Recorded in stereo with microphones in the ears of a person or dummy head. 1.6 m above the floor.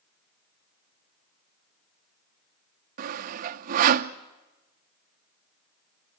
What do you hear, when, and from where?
3.0 s sawing: 50° right (ahead or behind), 0.9 m